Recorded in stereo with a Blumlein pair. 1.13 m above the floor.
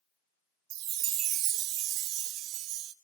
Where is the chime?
40° right, 0.5 m.